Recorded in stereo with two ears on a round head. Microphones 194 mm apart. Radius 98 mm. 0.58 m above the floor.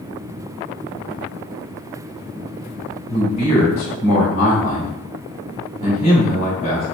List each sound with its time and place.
3.1 s a man speaking: 30° left (ahead or behind), 1.9 m